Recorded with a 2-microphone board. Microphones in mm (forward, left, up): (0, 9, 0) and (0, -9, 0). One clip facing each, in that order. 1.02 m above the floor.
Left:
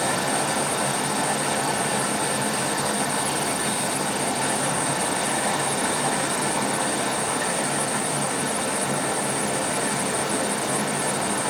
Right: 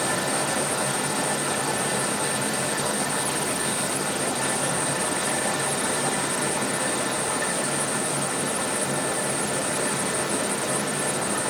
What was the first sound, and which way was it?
Running water, 30° left (ahead or behind).